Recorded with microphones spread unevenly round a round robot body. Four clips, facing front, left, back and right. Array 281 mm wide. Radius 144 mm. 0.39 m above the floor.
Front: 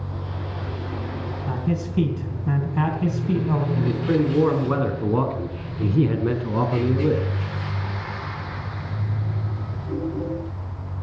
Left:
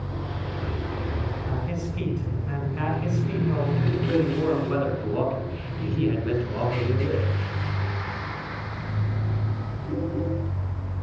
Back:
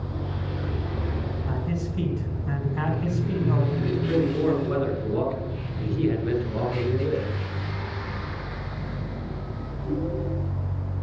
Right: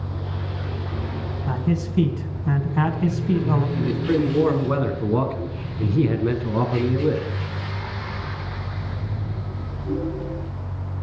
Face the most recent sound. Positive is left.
turn(degrees=-35)